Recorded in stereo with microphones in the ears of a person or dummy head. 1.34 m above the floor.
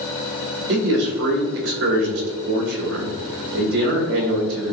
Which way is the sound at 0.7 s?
70° right (ahead or behind).